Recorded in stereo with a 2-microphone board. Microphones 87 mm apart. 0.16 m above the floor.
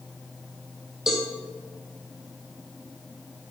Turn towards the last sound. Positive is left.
turn(degrees=-5)  # may be behind; listen again after turning